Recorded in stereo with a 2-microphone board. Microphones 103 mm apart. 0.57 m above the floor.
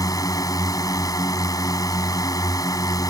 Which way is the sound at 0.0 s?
40° left (ahead or behind).